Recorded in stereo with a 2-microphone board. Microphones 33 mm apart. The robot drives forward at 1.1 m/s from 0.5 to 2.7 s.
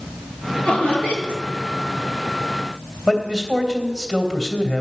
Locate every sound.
0.6 s laughter: 40° left (ahead or behind), 8 m; by 1.4 s 45° left (ahead or behind), 7.5 m
3.1 s a man speaking: 10° left (ahead or behind), 3 m